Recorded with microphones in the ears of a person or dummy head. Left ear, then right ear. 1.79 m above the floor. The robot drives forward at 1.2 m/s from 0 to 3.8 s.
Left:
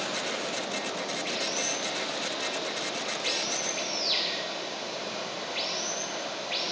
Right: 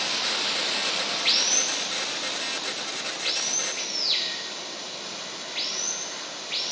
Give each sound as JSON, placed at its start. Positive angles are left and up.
{"t": 0.0, "sound": "running water", "side_deg": -25, "distance_m": 1.6}